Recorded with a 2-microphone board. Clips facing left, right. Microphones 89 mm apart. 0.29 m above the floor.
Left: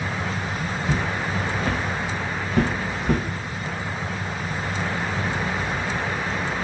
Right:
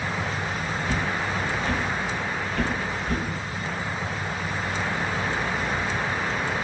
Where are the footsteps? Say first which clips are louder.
Left 2 dB; 30° left (ahead or behind), 1.1 m; by 3.2 s 70° left (ahead or behind), 0.9 m.